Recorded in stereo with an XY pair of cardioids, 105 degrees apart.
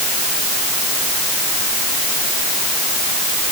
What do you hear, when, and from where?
Only background noise.